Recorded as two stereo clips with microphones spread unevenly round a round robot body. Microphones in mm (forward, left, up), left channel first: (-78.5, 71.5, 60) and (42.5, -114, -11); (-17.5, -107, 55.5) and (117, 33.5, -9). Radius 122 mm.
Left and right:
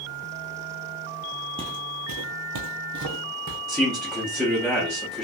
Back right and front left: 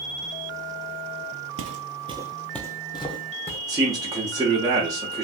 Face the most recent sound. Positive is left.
turn(degrees=15)